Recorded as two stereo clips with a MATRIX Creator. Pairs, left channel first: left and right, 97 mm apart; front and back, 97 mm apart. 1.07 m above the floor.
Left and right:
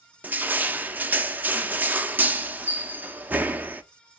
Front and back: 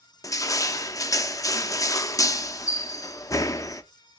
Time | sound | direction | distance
0.2 | crushing | 25° right | 0.6 m